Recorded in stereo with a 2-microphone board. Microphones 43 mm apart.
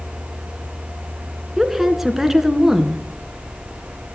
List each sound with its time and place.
1.6 s a woman speaking: 5° right (ahead or behind), 1.6 m